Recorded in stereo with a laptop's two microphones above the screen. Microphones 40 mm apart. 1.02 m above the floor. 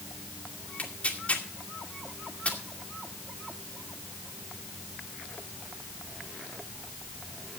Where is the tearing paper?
35° left (ahead or behind), 2.5 m.